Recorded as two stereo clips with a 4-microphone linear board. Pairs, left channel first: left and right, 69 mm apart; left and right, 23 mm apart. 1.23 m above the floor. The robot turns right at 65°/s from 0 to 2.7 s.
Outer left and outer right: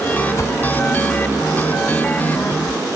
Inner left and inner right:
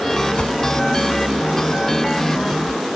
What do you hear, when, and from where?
0.4 s a whoosh: 45° left (ahead or behind); by 0.5 s 35° left (ahead or behind)